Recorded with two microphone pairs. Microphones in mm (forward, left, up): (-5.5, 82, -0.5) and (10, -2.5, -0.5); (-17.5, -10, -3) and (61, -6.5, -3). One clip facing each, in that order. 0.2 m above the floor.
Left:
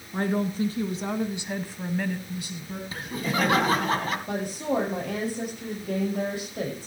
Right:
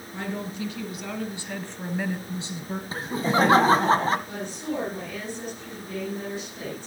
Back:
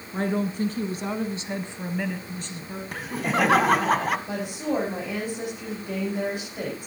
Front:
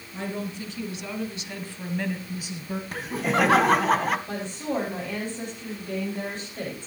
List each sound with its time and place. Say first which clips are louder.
0.1 s a woman speaking: left 6 dB, back 7 dB; 140° left, 2 m; by 2.8 s 55° right, 1.3 m
2.9 s laughter: right 5 dB, even; 85° right, 1.2 m
4.3 s a woman speaking: left 4 dB, back 2 dB; 100° left, 8.5 m